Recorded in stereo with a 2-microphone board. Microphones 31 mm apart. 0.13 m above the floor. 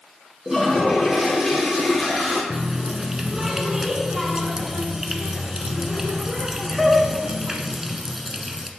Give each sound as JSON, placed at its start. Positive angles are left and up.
{"t": 0.5, "sound": "a toilet flushing", "side_deg": -20, "distance_m": 2.0}
{"t": 2.5, "sound": "a running tap", "side_deg": -15, "distance_m": 0.8}